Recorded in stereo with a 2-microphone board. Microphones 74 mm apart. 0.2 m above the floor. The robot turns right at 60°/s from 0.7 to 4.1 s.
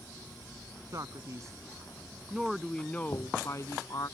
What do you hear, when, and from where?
0.9 s a man speaking: 100° right; by 4.1 s 90° left
3.1 s knocking: 65° left (ahead or behind); by 3.5 s 40° left (ahead or behind)